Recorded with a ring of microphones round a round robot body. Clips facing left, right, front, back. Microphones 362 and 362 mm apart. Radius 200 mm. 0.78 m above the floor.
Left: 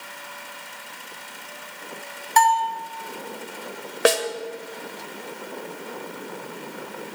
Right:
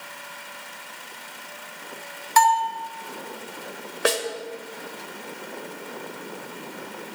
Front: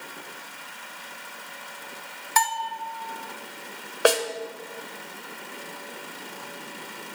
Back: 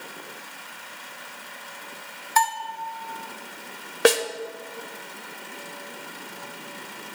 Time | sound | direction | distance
2.4 | a bell | 15° right | 1.0 m
4.0 | a snare drum | 120° left | 0.9 m